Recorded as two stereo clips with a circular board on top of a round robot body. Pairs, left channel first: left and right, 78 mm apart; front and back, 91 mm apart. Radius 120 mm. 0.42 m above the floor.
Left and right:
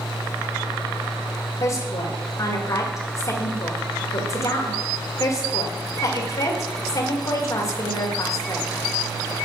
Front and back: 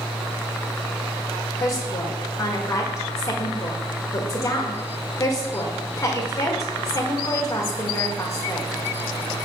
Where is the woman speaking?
55° left, 1.8 m.